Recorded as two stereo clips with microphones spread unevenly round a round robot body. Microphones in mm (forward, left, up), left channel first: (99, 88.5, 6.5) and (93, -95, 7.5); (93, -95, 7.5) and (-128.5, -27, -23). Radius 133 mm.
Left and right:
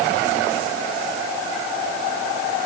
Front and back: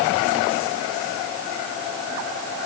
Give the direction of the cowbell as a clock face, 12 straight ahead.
I don't hear a cowbell.